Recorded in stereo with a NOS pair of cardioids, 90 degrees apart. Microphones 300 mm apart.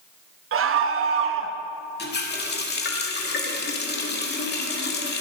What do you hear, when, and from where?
0.5 s a scream: 50° right, 1.2 m
2.0 s a running tap: 35° left, 2 m